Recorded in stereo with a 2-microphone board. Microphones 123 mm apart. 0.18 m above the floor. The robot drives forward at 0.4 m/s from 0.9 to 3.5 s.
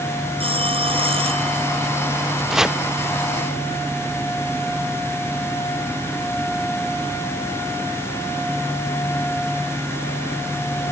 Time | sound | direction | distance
0.4 | a phone ringing | 45° right (ahead or behind) | ?
2.5 | chopping | 5° right (ahead or behind) | ?